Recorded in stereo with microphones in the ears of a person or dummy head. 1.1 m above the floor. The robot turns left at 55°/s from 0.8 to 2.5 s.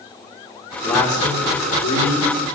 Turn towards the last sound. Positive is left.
turn(degrees=85)